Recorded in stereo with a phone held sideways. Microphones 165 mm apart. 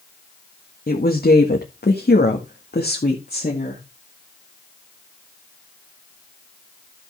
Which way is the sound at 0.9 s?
60° left (ahead or behind).